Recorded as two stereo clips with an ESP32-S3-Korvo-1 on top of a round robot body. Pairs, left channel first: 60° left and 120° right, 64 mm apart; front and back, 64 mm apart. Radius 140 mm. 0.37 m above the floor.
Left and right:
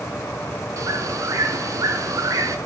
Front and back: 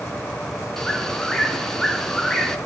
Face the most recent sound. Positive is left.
turn(degrees=-85)